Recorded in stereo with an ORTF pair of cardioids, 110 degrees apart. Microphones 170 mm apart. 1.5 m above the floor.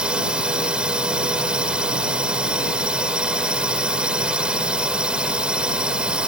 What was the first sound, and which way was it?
A drone, 5° right.